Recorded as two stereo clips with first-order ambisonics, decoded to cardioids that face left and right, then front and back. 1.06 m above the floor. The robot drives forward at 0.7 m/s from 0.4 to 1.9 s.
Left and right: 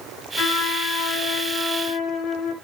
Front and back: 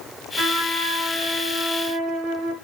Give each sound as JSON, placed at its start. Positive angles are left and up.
{"t": 0.4, "sound": "a trumpet", "azimuth_deg": 120, "distance_m": 4.0}